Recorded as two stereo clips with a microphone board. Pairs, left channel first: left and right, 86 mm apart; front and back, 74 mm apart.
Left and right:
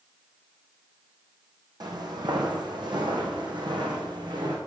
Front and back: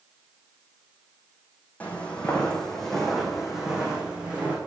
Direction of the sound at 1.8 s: 70° right.